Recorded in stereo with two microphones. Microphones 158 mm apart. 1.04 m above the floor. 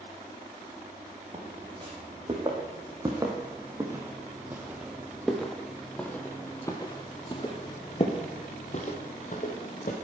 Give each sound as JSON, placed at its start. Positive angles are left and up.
{"t": 1.3, "sound": "footsteps", "side_deg": -35, "distance_m": 3.5}